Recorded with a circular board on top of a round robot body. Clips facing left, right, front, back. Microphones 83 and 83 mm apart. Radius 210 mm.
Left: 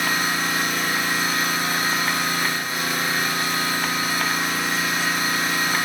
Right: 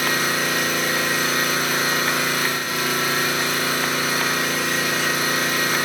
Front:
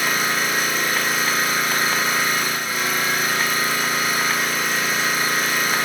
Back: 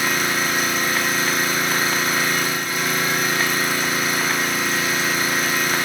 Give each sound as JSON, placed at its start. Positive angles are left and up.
{"t": 0.0, "sound": "an engine running", "azimuth_deg": -85, "distance_m": 3.5}